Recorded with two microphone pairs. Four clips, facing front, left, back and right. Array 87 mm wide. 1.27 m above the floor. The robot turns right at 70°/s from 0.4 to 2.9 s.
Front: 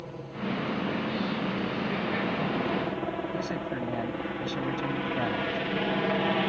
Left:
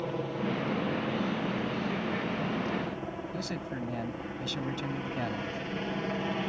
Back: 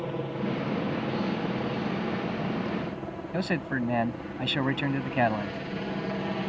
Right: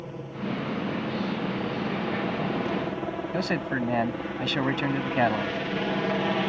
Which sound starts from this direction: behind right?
A man speaking, at 3.3 s.